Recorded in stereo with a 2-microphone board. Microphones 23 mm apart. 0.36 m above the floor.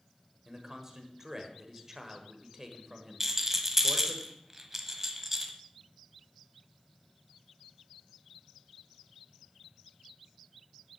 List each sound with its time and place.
0.5 s a man speaking: 20° right (ahead or behind), 1.5 m
3.2 s a rattle: 15° right (ahead or behind), 1.2 m